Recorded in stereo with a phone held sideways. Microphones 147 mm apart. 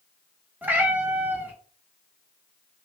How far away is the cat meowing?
About 0.6 m.